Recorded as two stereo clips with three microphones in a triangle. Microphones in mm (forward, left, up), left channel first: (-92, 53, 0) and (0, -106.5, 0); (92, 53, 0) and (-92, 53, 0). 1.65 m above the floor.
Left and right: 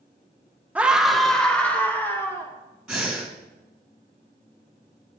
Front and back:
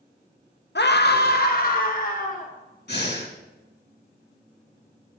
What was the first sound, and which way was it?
A scream, 20° left.